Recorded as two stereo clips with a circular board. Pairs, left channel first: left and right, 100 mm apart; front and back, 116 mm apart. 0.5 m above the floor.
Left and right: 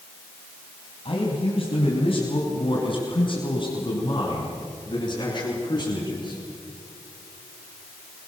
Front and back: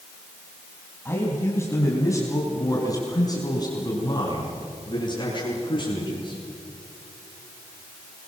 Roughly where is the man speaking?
Left.